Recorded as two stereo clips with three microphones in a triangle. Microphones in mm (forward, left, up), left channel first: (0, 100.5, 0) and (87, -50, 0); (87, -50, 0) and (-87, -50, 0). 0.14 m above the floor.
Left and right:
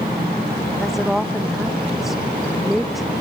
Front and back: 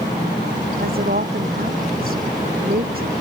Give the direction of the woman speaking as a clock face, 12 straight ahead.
5 o'clock.